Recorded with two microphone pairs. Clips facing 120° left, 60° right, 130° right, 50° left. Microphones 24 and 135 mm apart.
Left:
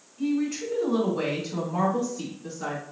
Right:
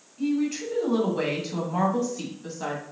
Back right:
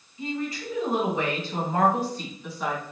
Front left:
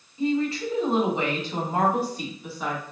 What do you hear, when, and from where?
0.2 s a woman speaking: 10° left, 2 m; by 2.8 s 40° right, 2 m